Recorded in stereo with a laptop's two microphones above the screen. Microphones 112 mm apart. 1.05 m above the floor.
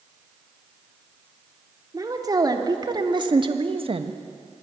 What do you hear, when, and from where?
1.9 s a woman speaking: 35° right (ahead or behind), 3.5 m; by 4.2 s 60° right (ahead or behind), 1.3 m